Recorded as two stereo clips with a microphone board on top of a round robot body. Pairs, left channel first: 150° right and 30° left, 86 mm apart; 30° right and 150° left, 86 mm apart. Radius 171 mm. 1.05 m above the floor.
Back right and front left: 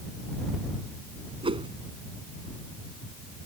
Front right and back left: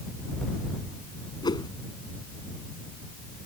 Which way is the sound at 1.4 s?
10° left.